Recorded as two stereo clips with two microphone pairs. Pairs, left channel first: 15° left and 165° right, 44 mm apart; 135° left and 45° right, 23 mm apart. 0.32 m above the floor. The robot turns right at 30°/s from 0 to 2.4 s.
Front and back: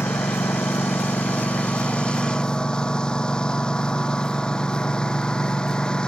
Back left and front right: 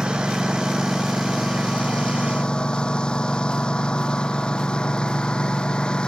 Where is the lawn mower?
15° left; by 6.1 s 85° left.